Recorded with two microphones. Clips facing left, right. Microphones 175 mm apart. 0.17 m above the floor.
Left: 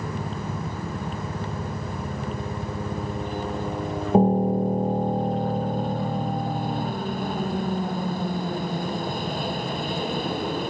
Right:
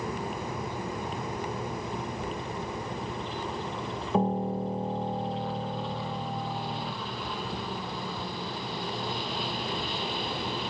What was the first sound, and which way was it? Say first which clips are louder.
A helicopter: left 2 dB; 50° left (ahead or behind).